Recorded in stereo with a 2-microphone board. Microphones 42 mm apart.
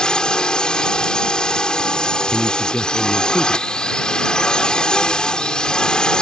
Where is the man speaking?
25° left (ahead or behind).